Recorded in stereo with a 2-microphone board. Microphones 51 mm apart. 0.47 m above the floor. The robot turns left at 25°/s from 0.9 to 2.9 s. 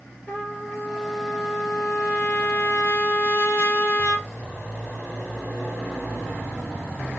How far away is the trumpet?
About 5.5 m.